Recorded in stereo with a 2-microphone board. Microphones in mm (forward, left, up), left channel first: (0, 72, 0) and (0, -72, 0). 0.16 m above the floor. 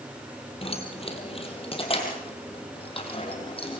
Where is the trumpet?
No trumpet in this recording.